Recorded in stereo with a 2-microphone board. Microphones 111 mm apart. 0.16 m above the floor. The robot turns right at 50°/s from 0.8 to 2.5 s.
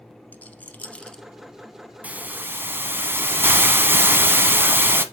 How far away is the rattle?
About 0.7 m.